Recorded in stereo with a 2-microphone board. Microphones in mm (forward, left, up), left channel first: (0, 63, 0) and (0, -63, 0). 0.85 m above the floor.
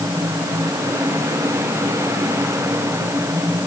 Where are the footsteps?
I don't hear footsteps.